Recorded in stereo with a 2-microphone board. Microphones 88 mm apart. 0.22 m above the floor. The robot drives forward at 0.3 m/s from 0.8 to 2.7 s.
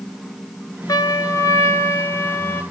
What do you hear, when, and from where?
0.9 s a trumpet: 50° left (ahead or behind), 0.7 m; by 2.6 s 30° left (ahead or behind), 1.1 m